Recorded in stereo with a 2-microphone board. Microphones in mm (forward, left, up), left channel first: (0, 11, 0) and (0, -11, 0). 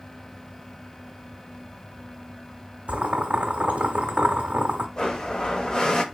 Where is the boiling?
70° right (ahead or behind), 0.6 m.